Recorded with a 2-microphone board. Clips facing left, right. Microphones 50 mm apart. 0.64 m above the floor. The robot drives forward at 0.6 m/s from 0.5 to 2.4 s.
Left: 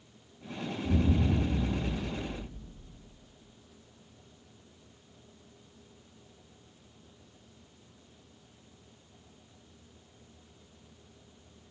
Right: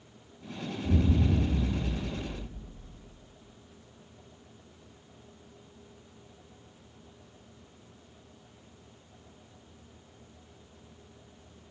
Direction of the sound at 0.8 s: 25° right (ahead or behind).